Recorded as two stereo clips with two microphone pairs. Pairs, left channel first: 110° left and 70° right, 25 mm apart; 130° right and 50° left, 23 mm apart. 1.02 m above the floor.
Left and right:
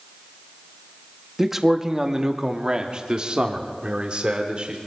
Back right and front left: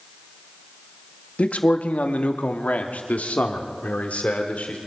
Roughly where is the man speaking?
Behind right.